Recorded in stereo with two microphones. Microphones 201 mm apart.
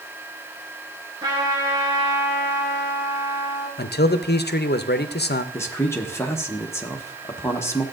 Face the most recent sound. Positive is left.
turn(degrees=15)  # may be behind; listen again after turning